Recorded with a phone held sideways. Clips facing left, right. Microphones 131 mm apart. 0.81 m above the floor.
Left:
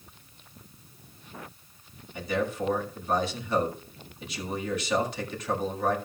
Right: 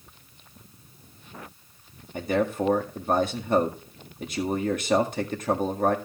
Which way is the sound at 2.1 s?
50° right (ahead or behind).